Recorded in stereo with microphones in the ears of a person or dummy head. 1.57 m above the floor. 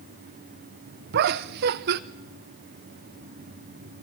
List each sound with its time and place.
1.1 s laughter: 55° right (ahead or behind), 0.8 m